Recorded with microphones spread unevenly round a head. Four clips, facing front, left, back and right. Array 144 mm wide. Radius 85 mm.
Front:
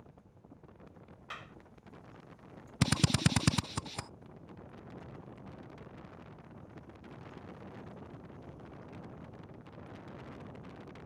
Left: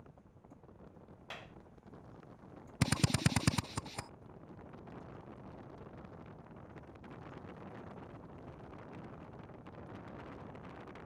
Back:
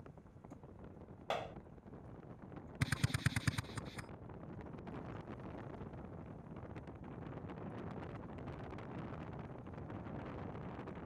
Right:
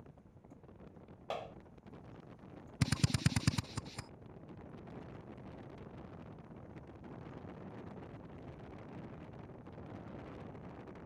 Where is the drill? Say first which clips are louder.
Left 2 dB, front 10 dB; 40° left.